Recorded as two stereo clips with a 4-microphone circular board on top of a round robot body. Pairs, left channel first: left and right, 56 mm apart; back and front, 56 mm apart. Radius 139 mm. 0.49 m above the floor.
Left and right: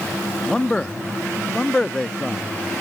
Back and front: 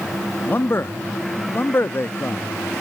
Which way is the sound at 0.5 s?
160° left.